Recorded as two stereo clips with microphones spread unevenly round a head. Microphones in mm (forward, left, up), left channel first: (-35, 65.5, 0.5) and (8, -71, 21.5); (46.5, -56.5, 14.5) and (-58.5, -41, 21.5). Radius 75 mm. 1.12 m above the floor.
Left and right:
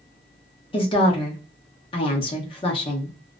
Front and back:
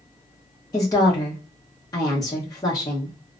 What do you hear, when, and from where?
0.7 s a woman speaking: 55° left, 0.9 m